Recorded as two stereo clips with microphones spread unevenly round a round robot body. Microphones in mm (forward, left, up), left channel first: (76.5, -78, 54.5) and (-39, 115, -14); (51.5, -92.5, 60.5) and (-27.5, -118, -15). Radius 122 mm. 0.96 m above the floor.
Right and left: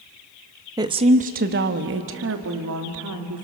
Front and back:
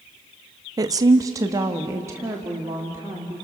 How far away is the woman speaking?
About 1.0 m.